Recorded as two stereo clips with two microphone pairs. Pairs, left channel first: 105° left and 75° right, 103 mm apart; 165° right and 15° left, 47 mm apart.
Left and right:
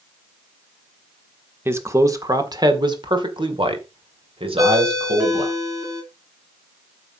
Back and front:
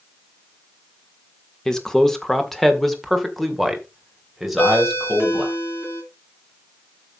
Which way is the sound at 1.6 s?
105° right.